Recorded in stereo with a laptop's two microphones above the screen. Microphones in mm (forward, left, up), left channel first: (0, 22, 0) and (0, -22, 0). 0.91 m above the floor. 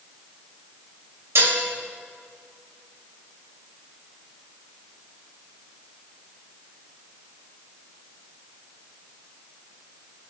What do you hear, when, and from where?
1.4 s dishes clattering: 75° right (ahead or behind), 2.5 m